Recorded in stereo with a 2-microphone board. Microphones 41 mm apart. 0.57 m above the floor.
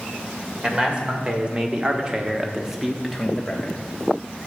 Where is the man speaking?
25° right (ahead or behind), 2.0 m; by 3.8 s 10° left (ahead or behind), 1.1 m.